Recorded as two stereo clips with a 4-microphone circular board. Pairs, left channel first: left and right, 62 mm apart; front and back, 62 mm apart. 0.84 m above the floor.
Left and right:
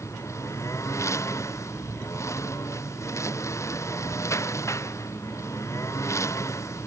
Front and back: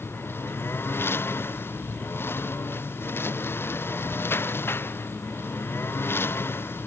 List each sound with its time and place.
0.0 s a lawn mower: 50° left